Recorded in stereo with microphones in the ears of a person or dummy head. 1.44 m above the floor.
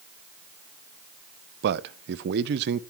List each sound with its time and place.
1.6 s a man speaking: 60° right (ahead or behind), 0.7 m